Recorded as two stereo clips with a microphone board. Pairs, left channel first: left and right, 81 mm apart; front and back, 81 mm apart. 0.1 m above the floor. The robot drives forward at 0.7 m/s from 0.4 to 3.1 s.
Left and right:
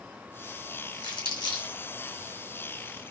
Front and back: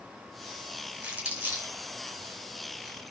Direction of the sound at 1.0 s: 105° left.